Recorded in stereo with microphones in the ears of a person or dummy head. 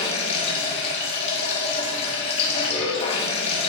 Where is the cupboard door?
No cupboard door in this recording.